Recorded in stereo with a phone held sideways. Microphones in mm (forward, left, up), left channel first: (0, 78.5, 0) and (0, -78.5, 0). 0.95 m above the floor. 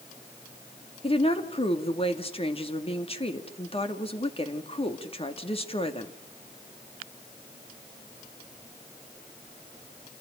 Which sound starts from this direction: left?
A woman speaking, at 1.0 s.